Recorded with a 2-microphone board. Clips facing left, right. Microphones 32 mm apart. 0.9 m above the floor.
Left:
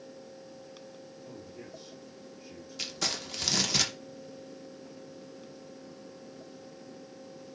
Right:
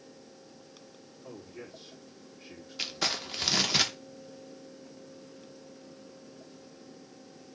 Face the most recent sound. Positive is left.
turn(degrees=-20)  # may be behind; listen again after turning